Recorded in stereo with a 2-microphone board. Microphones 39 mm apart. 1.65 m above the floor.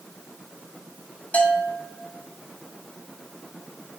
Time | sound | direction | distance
1.3 | a bell | 40° left (ahead or behind) | 2.5 m